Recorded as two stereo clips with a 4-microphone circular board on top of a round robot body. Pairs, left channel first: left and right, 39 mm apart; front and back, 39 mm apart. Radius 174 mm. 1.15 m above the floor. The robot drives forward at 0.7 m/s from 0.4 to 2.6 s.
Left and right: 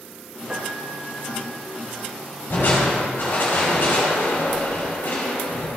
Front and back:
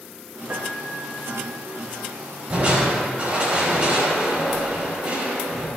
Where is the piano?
160° right, 0.5 m; by 1.6 s 175° right, 1.1 m.